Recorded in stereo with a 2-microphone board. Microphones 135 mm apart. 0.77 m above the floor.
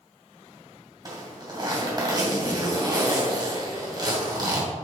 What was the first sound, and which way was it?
A zipper, 30° right (ahead or behind).